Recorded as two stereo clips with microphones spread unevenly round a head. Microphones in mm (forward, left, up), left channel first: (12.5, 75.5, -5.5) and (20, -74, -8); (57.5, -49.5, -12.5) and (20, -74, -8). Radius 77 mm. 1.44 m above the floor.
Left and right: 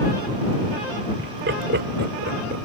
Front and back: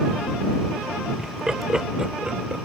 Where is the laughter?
75° right.